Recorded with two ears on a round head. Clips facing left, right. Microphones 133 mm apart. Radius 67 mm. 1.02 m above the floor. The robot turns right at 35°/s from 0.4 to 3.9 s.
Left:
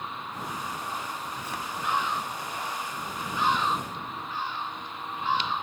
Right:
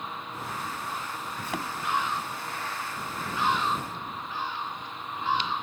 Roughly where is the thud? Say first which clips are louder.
Right 2 dB; right.